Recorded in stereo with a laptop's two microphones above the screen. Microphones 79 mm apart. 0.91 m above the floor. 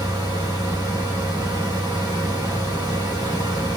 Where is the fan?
70° right (ahead or behind), 1.5 m.